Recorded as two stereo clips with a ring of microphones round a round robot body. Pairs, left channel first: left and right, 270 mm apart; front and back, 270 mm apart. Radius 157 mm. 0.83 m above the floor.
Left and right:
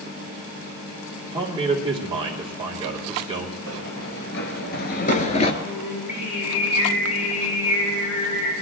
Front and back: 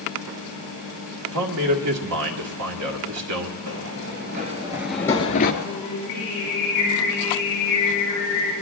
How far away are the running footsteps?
About 1.3 m.